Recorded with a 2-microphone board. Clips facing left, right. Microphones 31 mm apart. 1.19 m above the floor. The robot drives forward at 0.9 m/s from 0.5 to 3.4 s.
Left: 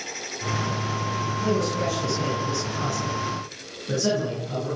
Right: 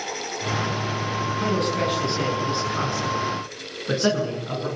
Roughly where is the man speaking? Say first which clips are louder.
Right 1 dB; right.